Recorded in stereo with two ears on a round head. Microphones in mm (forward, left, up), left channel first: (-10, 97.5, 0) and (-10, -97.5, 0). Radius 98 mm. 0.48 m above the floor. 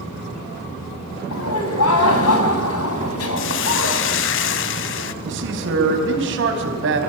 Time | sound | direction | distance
1.3 | laughter | 75° left (ahead or behind) | 4.5 m
3.4 | a hiss | 60° left (ahead or behind) | 1.1 m
5.2 | a man speaking | 60° right (ahead or behind) | 4.5 m